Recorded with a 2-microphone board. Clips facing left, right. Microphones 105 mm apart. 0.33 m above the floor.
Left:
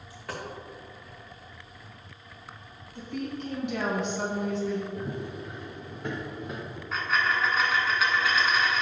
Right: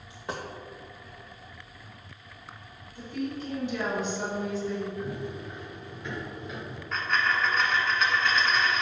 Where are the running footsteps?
65° left (ahead or behind), 2.5 m; by 6.8 s 45° left (ahead or behind), 3 m.